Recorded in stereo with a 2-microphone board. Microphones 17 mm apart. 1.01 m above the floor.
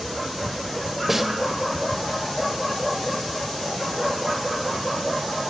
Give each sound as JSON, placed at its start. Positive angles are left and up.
{"t": 1.1, "sound": "a snare drum", "side_deg": -10, "distance_m": 2.0}